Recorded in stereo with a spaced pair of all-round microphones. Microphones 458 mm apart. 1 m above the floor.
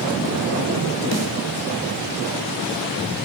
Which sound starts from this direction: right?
A snare drum, at 1.1 s.